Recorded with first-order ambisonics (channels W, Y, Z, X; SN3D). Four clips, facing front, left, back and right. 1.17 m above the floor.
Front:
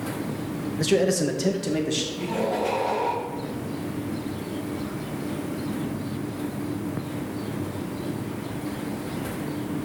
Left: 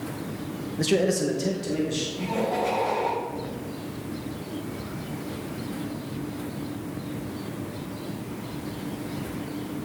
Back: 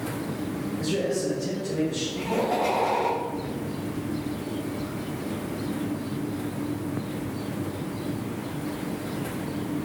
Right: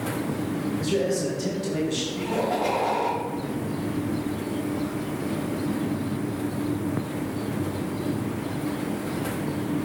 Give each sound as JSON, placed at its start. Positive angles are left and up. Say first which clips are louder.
{"t": 0.8, "sound": "a man speaking", "louder": "left 4 dB, front 6 dB", "azimuth_deg": 45, "distance_m": 1.1}
{"t": 2.1, "sound": "laughter", "louder": "right 1 dB, back 1 dB", "azimuth_deg": -145, "distance_m": 3.0}